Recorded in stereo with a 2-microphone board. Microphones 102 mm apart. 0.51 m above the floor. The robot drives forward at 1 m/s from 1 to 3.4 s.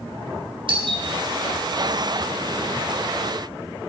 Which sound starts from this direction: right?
A doorbell, at 0.7 s.